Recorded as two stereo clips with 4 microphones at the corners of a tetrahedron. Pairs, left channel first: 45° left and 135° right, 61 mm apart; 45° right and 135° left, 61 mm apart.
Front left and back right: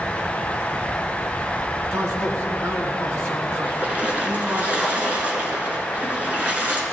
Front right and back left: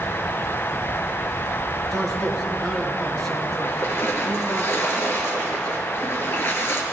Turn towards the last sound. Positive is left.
turn(degrees=-80)